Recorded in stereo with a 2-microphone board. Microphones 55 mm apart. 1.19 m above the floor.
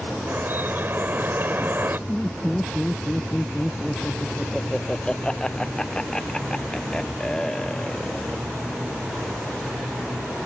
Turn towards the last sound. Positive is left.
turn(degrees=15)  # may be behind; listen again after turning